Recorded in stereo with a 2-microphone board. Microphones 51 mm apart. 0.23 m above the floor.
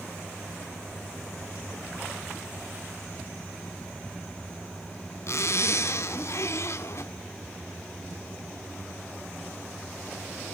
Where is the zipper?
60° left (ahead or behind), 0.6 m.